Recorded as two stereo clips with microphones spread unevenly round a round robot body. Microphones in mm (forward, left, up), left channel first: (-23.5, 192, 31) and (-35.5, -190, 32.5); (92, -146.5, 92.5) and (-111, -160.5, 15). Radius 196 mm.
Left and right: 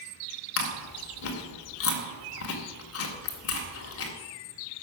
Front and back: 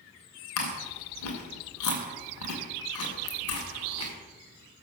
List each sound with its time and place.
0.6 s chewing: 30° left, 2 m